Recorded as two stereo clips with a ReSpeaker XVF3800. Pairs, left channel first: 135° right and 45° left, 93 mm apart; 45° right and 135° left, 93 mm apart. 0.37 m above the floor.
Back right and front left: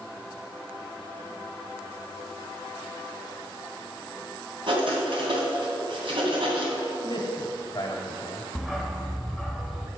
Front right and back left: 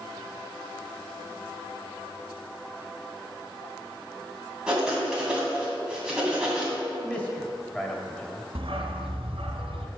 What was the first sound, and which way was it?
Writing, 55° left.